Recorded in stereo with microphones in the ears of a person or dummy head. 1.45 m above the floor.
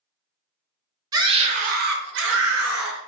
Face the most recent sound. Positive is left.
turn(degrees=-75)  # may be behind; listen again after turning